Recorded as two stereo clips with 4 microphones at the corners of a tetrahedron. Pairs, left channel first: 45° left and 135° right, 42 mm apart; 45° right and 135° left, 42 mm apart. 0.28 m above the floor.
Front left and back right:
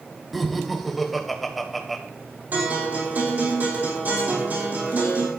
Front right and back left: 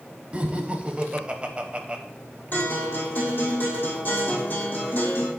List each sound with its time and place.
0.3 s laughter: 135° left, 1.0 m
2.5 s a guitar: 90° right, 4 m